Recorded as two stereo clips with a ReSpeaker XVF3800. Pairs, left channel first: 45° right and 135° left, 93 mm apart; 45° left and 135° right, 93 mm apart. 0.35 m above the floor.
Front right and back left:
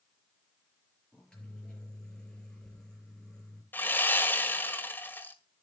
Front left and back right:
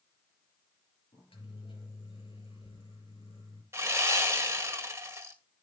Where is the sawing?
95° right, 1.8 m.